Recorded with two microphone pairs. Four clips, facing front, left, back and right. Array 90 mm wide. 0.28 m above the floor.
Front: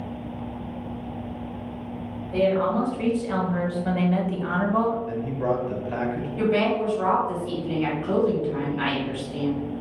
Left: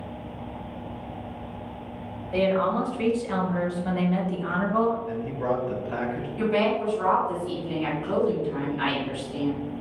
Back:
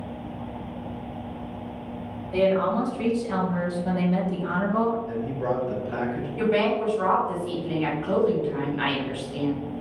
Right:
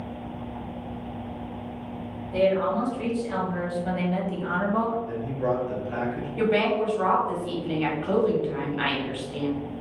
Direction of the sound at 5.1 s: 25° left.